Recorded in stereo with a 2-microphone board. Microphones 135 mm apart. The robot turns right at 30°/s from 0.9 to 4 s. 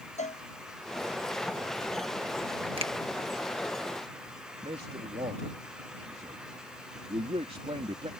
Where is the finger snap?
45° right (ahead or behind); by 2.9 s 50° right (ahead or behind).